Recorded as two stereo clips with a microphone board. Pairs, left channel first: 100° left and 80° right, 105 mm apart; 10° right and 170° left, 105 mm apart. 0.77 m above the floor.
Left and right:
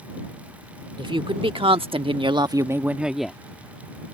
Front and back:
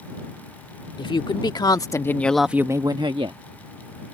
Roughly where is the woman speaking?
Ahead right.